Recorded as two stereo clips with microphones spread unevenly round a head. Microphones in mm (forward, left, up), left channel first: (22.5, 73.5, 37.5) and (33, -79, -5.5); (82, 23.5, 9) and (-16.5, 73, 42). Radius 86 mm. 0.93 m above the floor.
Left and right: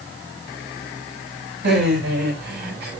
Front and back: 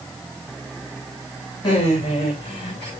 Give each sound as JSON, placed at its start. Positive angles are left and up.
{"t": 1.6, "sound": "laughter", "azimuth_deg": -90, "distance_m": 7.0}